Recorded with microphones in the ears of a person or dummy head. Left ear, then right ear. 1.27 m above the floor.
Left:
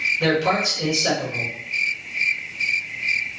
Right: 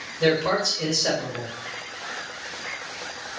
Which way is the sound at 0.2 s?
5° right (ahead or behind).